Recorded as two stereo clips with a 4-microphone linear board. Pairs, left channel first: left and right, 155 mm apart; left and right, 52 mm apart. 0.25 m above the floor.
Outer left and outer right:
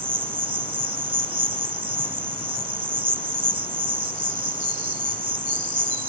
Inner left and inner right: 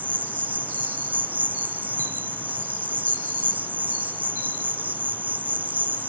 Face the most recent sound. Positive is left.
turn(degrees=-35)  # may be behind; listen again after turning